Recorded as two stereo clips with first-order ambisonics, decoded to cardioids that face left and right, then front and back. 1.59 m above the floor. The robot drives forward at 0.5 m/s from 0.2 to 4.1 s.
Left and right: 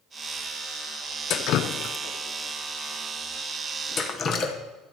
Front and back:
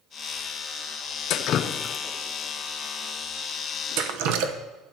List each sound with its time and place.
1.3 s dripping: 40° left, 0.7 m; by 4.5 s 155° left, 1.0 m